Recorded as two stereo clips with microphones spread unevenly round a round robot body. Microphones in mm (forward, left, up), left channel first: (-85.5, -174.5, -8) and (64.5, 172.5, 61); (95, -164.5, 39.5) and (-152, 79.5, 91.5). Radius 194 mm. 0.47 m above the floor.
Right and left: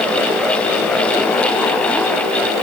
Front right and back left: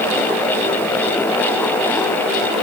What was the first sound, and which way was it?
Only background noise.